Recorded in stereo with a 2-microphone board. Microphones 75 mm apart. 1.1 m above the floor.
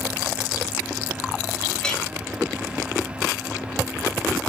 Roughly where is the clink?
Centre.